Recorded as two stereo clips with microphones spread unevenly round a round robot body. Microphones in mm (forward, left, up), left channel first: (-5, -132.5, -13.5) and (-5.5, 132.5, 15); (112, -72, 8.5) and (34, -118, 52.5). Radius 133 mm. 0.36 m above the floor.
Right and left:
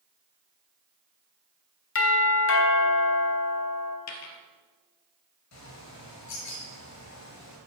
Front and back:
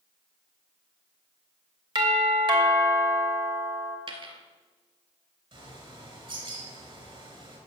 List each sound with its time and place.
1.9 s a doorbell: 100° right, 3 m
4.1 s a dropped coin: 120° right, 2 m
5.5 s a bird: 120° right, 5 m